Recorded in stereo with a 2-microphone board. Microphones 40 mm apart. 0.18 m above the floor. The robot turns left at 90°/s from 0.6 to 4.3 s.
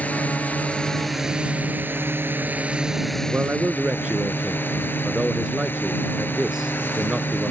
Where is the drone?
45° left; by 7.5 s 70° left.